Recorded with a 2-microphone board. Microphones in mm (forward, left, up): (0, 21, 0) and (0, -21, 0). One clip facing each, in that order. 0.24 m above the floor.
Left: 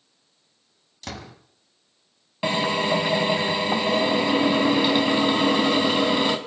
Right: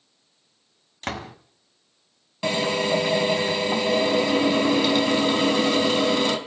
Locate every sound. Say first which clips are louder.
1.0 s a door slam: right 6 dB; 45° right (ahead or behind), 1.1 m
2.4 s a drill: left 1 dB; 15° left (ahead or behind), 1.6 m